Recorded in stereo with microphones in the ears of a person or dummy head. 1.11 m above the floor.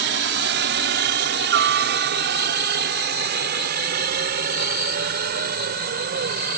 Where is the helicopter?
55° right (ahead or behind); by 6.6 s 45° right (ahead or behind).